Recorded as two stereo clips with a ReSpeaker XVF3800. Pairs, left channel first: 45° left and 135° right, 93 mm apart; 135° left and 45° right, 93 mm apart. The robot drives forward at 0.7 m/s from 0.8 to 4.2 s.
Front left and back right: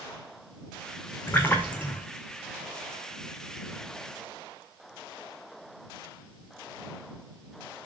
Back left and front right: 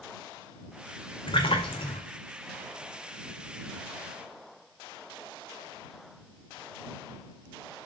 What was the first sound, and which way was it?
A splash, 110° left.